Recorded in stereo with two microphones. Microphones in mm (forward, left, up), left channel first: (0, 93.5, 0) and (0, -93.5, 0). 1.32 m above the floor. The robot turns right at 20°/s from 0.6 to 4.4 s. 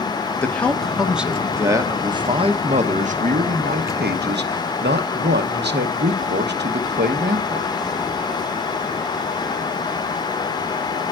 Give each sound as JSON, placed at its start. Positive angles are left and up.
{"t": 0.4, "sound": "a man speaking", "azimuth_deg": 175, "distance_m": 0.9}